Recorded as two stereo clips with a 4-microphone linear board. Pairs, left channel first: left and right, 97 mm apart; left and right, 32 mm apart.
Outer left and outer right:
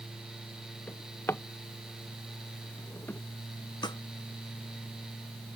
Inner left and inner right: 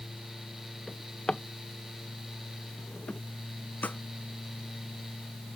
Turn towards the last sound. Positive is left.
turn(degrees=50)  # may be behind; listen again after turning